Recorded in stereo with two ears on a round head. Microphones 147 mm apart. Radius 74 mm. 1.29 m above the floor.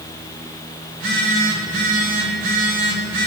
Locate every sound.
0.9 s a phone buzzing: 65° right (ahead or behind), 5.5 m